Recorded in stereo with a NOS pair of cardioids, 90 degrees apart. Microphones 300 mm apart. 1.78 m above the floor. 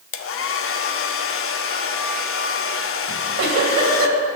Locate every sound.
0.1 s a hair dryer: 50° left, 0.8 m
3.1 s a giggle: 60° right, 2.5 m